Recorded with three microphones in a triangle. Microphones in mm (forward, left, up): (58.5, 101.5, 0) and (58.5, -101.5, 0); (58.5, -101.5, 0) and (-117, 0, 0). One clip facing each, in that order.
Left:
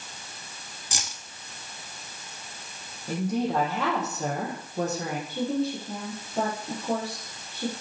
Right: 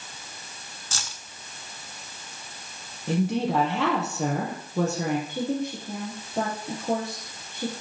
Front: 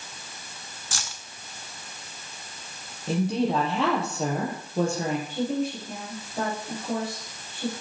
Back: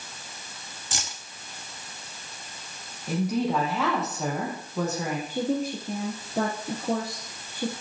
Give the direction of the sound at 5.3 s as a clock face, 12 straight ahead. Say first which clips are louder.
Left 1 dB, even; 5 o'clock.